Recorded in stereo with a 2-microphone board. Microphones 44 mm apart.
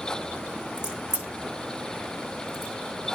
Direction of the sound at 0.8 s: 20° right (ahead or behind).